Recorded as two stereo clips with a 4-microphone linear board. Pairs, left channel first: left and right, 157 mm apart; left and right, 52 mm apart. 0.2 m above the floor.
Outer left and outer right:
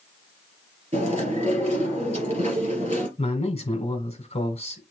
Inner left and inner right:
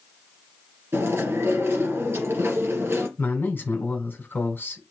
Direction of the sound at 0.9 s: 50° right (ahead or behind).